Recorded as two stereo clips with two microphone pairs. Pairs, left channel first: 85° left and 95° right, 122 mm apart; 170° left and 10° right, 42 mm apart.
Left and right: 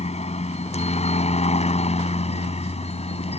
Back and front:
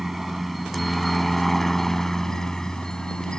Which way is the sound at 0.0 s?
75° left.